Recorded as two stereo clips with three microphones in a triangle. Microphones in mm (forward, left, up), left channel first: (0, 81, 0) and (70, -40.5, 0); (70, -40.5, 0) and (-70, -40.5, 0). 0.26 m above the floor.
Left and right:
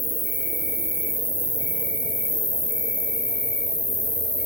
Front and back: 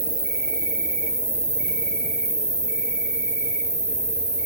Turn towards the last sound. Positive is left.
turn(degrees=-95)